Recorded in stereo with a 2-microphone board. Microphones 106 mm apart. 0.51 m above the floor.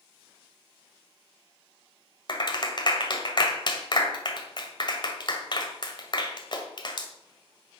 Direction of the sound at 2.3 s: 45° left (ahead or behind).